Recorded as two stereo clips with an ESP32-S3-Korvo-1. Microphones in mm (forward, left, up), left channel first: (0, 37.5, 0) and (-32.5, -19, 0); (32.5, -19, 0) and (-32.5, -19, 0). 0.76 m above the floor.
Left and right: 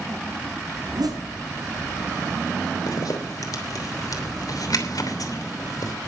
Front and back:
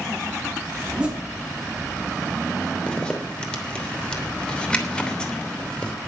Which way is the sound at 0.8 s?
110° right.